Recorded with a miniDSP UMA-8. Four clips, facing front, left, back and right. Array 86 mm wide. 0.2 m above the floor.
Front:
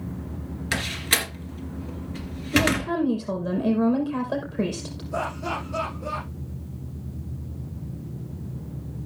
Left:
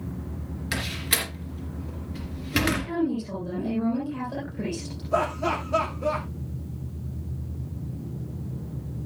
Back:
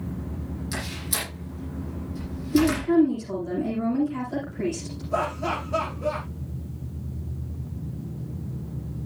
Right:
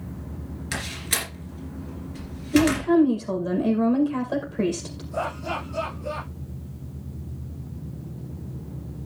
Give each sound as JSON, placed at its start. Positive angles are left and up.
{"t": 0.7, "sound": "a door slam", "azimuth_deg": 10, "distance_m": 3.0}
{"t": 2.5, "sound": "a woman speaking", "azimuth_deg": -40, "distance_m": 6.0}
{"t": 5.1, "sound": "laughter", "azimuth_deg": 115, "distance_m": 7.5}